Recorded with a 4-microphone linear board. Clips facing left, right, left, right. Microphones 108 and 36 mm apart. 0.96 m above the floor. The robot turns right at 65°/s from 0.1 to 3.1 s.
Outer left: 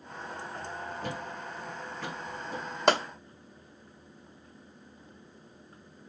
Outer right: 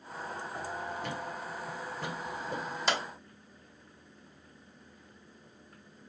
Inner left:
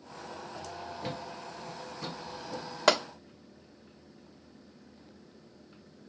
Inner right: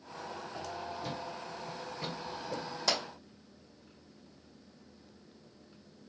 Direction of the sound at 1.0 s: 40° left (ahead or behind).